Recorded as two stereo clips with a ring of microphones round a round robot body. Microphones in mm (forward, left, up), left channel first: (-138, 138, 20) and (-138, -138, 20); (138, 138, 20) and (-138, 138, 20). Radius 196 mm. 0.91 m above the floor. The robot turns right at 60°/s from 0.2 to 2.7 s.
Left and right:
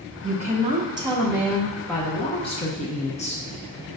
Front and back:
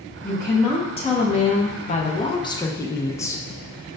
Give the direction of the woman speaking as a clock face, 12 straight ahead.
3 o'clock.